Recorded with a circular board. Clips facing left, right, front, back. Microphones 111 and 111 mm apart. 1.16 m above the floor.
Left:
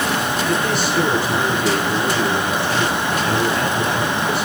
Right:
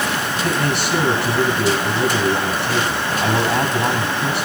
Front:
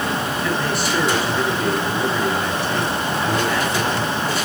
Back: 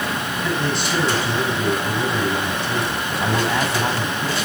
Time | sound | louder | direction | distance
0.3 | a man speaking | left 1 dB, front 1 dB | 110° right | 8.5 m